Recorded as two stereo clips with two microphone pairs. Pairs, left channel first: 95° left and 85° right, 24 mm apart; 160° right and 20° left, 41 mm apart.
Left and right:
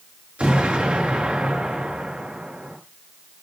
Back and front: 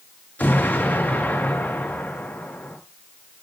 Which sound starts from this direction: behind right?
An explosion, at 0.4 s.